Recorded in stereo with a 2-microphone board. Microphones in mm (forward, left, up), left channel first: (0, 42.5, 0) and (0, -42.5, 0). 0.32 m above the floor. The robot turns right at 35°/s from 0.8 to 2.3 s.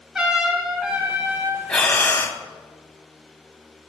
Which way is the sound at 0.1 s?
10° right (ahead or behind).